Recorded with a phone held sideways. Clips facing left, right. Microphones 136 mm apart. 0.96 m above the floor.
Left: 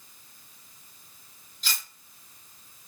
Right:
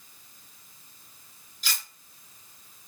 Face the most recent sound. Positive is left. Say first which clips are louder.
# even
turn(degrees=-5)  # may be behind; listen again after turning